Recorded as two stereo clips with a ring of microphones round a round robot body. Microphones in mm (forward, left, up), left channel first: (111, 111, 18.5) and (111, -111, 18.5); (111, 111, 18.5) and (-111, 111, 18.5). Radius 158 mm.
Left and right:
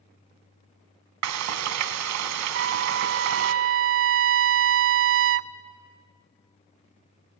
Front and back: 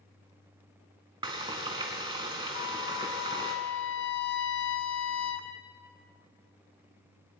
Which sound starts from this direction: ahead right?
A trumpet, at 2.5 s.